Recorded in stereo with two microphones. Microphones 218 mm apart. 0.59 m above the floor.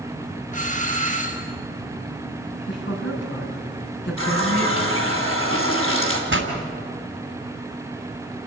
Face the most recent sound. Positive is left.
turn(degrees=-60)  # may be behind; listen again after turning